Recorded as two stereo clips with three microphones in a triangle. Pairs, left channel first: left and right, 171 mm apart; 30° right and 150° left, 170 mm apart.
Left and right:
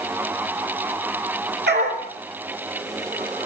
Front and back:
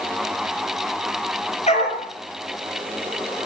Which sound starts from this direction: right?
A dog barking, at 1.7 s.